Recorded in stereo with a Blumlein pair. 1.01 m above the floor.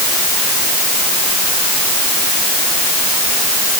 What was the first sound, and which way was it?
Only background noise.